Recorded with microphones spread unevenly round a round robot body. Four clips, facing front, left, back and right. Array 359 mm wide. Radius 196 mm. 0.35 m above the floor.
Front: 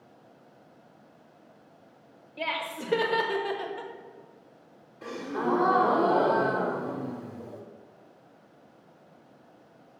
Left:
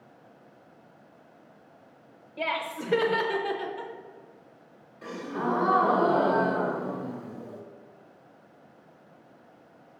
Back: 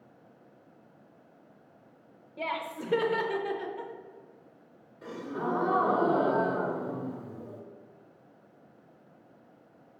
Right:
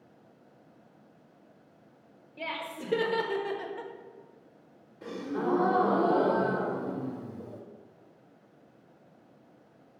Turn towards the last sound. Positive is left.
turn(degrees=-80)